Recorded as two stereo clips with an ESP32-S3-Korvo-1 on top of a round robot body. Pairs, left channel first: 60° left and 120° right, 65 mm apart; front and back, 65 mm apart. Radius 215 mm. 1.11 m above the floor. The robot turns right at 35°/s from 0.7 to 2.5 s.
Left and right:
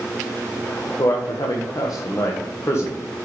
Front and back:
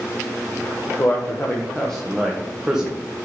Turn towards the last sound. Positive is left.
turn(degrees=100)